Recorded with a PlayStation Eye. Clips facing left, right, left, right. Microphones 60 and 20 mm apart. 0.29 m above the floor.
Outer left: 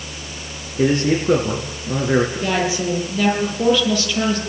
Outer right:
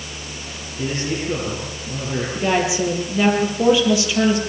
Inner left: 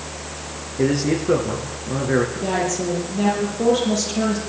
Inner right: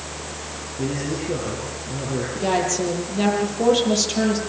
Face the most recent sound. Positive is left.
turn(degrees=-15)  # may be behind; listen again after turning